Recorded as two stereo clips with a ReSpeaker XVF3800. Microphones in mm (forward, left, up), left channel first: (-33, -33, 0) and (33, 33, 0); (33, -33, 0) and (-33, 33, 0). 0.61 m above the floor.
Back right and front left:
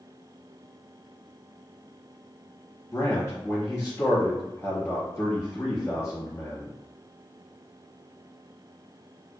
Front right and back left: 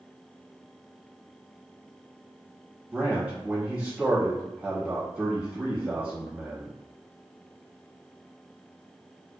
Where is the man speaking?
160° right, 1.1 m.